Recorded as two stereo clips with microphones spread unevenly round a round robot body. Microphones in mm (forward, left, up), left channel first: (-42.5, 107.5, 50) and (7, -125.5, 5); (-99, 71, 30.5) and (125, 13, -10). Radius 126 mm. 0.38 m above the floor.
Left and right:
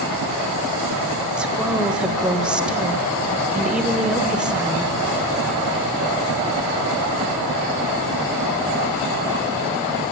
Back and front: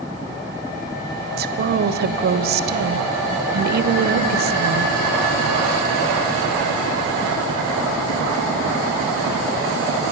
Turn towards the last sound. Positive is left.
turn(degrees=0)